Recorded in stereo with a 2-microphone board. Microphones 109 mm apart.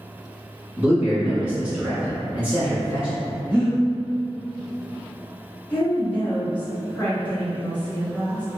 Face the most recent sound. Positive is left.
turn(degrees=15)  # may be behind; listen again after turning